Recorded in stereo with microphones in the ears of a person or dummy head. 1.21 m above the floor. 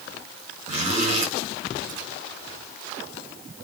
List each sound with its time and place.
0.7 s a zipper: 45° right (ahead or behind), 6 m